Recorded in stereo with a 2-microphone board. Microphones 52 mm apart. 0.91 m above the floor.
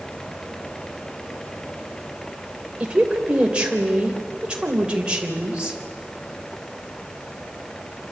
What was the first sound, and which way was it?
A woman speaking, 20° right (ahead or behind).